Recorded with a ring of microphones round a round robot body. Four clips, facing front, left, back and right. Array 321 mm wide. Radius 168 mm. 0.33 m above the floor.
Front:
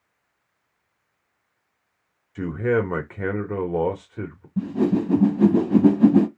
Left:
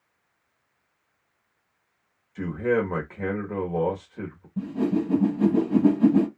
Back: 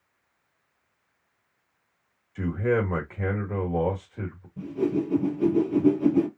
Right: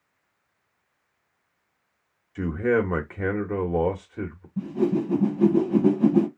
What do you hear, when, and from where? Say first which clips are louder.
2.4 s a man speaking: right 1 dB, front 3 dB; 40° right, 1.5 m
4.6 s a whoosh: right 1 dB, front 4 dB; 5° left, 0.8 m